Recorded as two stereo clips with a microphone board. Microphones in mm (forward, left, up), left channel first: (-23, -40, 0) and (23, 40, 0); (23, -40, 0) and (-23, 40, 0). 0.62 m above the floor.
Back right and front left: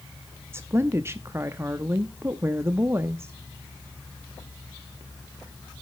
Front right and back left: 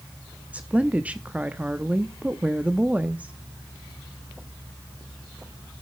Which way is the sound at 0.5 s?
65° left.